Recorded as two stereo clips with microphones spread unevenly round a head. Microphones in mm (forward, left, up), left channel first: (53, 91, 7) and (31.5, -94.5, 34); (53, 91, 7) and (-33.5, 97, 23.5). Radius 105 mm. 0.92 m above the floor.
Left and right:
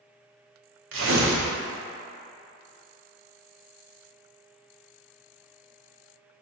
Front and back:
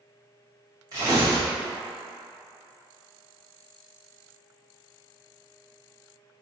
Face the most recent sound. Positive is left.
turn(degrees=-120)